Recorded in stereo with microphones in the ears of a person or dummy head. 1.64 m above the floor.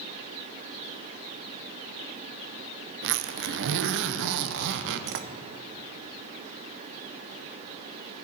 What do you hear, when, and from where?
3.0 s a zipper: 65° right (ahead or behind), 0.7 m